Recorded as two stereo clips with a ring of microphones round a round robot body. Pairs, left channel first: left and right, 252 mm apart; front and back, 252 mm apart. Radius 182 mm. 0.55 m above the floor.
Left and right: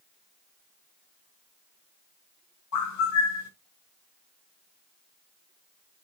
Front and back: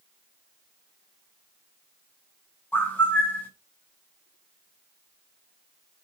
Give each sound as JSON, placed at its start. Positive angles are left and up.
{"t": 2.7, "sound": "a bird", "azimuth_deg": 85, "distance_m": 4.0}